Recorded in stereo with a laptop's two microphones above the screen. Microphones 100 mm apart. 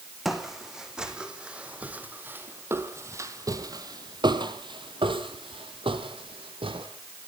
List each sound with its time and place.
0.2 s footsteps: centre (ahead or behind), 3 m; by 6.9 s 60° right (ahead or behind), 2.5 m